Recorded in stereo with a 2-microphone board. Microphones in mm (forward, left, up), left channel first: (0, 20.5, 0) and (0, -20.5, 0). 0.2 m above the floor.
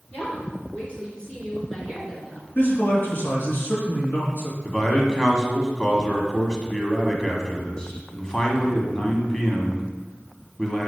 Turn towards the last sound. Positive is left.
turn(degrees=15)  # may be behind; listen again after turning